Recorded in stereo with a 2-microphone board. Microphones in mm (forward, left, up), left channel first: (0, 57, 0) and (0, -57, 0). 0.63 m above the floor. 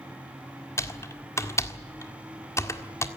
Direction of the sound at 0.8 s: 25° left (ahead or behind).